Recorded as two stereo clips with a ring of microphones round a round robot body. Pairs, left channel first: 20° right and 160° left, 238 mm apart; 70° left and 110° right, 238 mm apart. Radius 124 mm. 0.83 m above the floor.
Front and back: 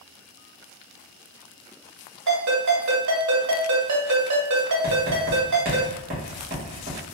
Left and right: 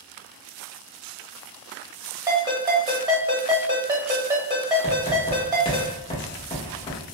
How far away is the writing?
About 1.1 m.